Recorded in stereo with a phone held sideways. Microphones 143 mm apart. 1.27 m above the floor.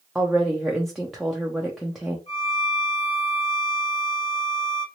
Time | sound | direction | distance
0.1 | a woman speaking | centre (ahead or behind) | 0.6 m
2.3 | a violin | 55° left (ahead or behind) | 2.5 m